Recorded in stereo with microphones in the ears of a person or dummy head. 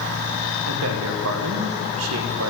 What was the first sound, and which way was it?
A man speaking, 80° right.